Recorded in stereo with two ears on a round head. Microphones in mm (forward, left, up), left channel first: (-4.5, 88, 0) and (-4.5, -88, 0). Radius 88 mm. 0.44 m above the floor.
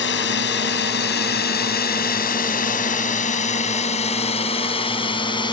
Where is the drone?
60° left (ahead or behind); by 5.5 s 25° left (ahead or behind).